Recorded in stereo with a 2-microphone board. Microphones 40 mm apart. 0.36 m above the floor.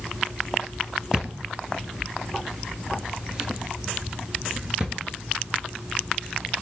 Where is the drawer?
20° right (ahead or behind), 1.9 m.